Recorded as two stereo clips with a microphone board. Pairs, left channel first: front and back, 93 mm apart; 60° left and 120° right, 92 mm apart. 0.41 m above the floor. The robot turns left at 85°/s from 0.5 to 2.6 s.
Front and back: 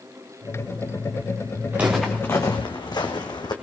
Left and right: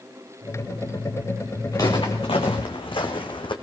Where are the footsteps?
115° left, 3 m; by 3.5 s 35° left, 1.7 m.